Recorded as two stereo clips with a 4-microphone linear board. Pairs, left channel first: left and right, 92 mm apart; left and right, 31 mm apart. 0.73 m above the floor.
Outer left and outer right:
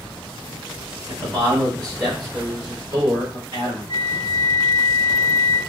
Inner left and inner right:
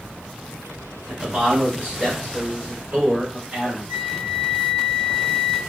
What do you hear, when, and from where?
1.1 s a man speaking: 35° right (ahead or behind), 1.5 m; by 3.9 s 60° right (ahead or behind), 3 m
3.9 s a flute: 85° right, 1.0 m